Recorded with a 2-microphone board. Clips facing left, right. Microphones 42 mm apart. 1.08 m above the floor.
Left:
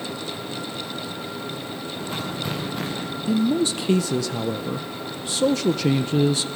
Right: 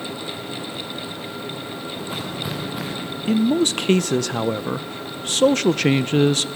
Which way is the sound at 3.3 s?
55° right (ahead or behind).